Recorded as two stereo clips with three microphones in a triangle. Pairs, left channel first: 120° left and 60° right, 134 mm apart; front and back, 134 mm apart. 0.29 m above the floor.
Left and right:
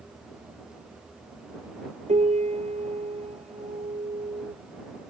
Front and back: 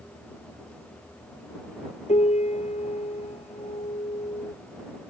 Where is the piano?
30° right.